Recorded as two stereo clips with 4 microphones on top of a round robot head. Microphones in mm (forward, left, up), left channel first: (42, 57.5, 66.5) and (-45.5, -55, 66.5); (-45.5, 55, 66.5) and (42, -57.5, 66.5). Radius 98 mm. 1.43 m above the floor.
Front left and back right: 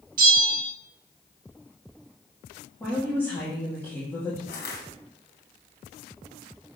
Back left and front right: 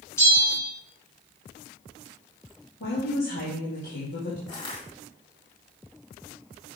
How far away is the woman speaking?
About 2.5 m.